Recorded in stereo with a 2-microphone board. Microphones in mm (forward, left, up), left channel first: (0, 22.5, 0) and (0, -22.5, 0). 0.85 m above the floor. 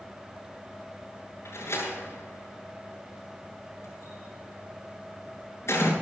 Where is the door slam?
80° left, 8 m.